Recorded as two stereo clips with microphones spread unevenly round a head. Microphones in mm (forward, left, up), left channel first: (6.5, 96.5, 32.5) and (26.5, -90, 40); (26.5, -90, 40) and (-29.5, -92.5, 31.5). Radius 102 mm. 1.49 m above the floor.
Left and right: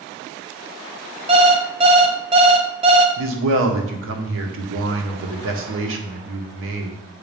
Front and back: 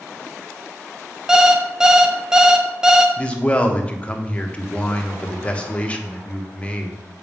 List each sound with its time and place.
1.3 s an alarm clock: 95° right, 0.6 m
3.2 s a man speaking: 70° right, 1.4 m